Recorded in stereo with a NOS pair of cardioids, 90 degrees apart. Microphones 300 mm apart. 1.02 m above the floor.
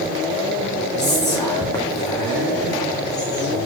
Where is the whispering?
10° left, 1.3 m.